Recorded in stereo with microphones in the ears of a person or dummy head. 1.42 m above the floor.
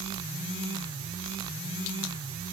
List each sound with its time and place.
Only background noise.